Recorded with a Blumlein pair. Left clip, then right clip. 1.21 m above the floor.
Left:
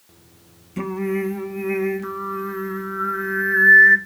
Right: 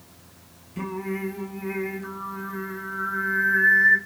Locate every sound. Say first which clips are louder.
0.8 s singing: left 6 dB; 70° left, 0.7 m